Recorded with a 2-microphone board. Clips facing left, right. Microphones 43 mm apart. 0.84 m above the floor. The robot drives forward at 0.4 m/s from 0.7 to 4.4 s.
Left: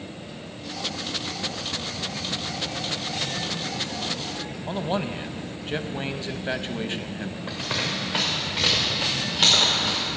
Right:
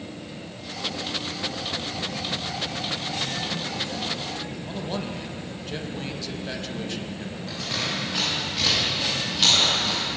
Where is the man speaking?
35° left (ahead or behind), 0.5 m.